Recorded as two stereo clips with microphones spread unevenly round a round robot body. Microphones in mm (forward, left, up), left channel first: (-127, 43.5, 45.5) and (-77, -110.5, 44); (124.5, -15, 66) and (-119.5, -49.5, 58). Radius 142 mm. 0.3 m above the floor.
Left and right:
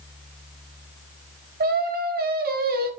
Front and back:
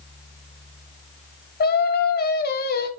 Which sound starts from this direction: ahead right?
Singing, at 1.6 s.